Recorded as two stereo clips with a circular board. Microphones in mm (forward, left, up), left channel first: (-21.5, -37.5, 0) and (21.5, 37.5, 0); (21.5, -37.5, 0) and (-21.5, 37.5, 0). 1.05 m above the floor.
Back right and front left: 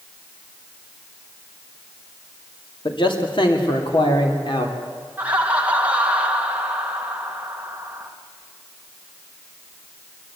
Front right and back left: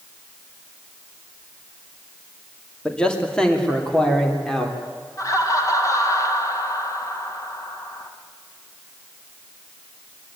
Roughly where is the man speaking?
Behind right.